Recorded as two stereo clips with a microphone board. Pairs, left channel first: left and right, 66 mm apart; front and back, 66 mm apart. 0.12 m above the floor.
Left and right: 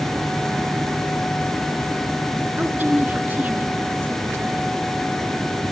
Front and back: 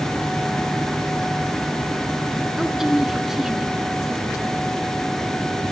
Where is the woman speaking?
105° right, 1.3 m.